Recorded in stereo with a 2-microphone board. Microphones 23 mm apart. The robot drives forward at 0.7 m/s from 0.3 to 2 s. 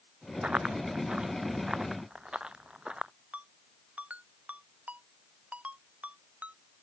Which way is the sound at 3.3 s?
70° right (ahead or behind).